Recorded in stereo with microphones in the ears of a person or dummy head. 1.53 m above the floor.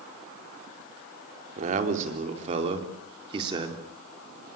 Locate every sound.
1.6 s a man speaking: 45° right (ahead or behind), 4 m; by 3.8 s 25° right (ahead or behind), 4 m